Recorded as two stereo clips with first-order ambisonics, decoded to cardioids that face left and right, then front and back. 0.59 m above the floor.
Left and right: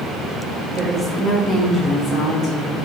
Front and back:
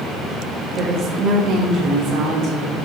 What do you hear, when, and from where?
0.8 s a woman speaking: 165° right, 0.9 m; by 2.9 s 135° left, 2.0 m